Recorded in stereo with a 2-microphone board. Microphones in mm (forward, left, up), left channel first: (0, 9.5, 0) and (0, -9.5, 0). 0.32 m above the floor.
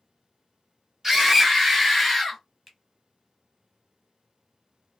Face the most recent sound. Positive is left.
turn(degrees=-5)  # may be behind; listen again after turning